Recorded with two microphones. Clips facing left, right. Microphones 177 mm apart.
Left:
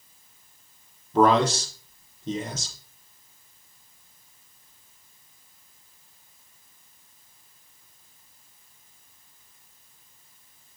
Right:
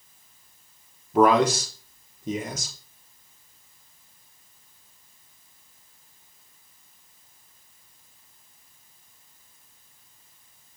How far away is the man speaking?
About 3.5 m.